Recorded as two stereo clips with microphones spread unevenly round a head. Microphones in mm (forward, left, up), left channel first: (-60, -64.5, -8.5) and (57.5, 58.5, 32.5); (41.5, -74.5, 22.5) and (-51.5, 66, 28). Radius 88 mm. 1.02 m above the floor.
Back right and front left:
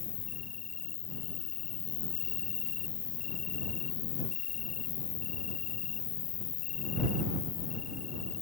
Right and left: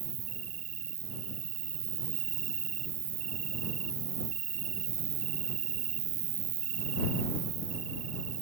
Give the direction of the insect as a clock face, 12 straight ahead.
6 o'clock.